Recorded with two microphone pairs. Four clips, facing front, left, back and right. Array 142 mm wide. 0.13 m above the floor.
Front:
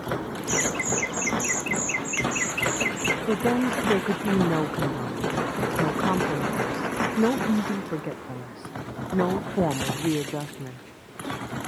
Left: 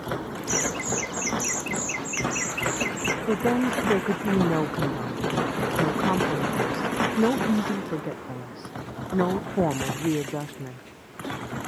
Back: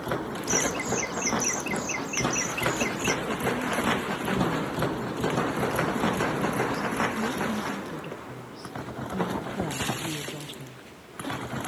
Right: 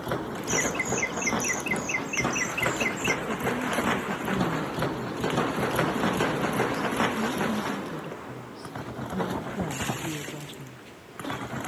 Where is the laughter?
50° right; by 3.2 s 35° right.